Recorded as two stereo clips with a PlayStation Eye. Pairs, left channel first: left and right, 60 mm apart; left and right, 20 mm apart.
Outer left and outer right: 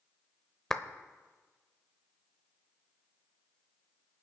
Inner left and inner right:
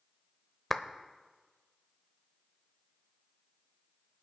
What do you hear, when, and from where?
0.7 s a clap: 5° left (ahead or behind), 0.7 m